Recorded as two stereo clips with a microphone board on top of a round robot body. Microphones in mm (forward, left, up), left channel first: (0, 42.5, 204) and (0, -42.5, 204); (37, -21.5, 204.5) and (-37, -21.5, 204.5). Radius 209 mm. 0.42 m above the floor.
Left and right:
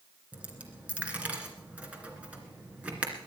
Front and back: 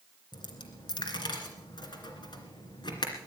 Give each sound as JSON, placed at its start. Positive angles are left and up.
{"t": 0.3, "sound": "a dropped coin", "azimuth_deg": -15, "distance_m": 2.5}